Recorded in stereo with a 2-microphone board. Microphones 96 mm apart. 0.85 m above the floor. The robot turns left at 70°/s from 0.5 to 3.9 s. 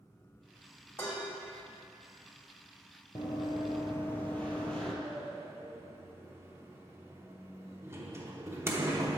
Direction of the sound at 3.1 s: 45° left (ahead or behind).